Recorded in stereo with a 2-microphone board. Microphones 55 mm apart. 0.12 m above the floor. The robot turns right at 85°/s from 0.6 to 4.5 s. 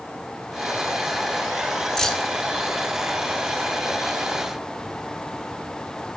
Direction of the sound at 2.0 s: 10° left (ahead or behind).